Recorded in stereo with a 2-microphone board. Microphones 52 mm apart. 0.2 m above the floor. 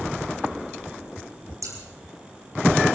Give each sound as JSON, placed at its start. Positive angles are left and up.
{"t": 1.6, "sound": "scissors", "side_deg": -85, "distance_m": 5.5}